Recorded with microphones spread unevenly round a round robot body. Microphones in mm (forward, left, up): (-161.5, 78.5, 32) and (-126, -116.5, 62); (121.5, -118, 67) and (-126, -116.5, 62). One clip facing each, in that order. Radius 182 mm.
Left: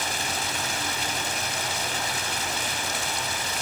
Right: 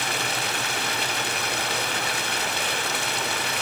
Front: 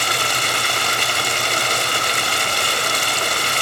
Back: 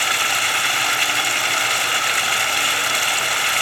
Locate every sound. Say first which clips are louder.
0.0 s running water: right 2 dB, front 3 dB; 40° right, 1.7 m